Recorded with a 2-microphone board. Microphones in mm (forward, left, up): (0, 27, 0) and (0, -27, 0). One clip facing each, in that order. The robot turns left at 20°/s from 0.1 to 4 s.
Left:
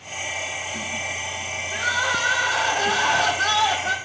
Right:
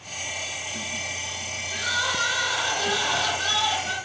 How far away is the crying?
About 1.2 m.